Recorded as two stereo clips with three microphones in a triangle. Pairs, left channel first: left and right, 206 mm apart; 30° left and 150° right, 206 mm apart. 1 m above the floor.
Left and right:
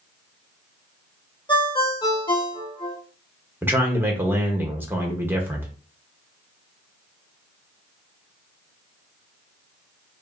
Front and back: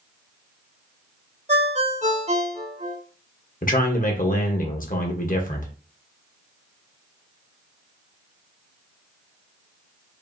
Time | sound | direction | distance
1.5 | a ringtone | 155° left | 1.4 m
3.6 | a man speaking | 10° right | 1.3 m